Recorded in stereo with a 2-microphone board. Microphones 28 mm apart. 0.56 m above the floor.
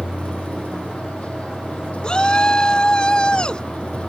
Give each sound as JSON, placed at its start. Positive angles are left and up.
{"t": 0.0, "sound": "a vehicle", "side_deg": 40}
{"t": 2.0, "sound": "a shout", "side_deg": 30}